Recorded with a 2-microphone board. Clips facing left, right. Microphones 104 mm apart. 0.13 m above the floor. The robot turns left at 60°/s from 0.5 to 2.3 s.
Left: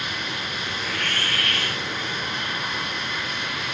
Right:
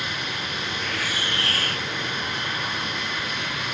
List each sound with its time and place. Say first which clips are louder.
0.8 s a hiss: left 2 dB; 10° left; by 1.9 s 55° right